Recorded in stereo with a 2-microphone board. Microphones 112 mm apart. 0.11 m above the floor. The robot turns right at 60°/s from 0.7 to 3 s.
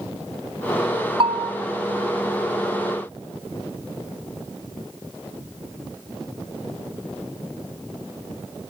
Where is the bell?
55° right (ahead or behind), 1.9 m; by 1.5 s 65° right (ahead or behind), 1.9 m.